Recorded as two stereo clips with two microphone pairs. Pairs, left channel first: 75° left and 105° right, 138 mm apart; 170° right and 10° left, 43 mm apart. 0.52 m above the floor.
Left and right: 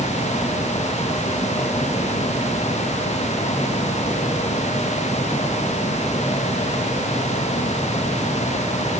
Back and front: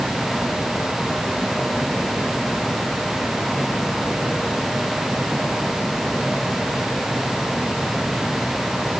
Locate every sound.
Only background noise.